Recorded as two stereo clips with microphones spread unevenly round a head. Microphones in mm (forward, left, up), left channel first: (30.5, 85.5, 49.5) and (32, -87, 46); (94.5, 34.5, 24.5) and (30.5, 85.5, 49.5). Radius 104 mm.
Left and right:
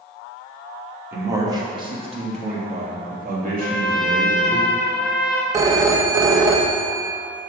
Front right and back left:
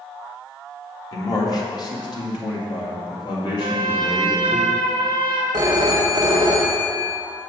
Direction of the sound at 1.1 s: 15° right.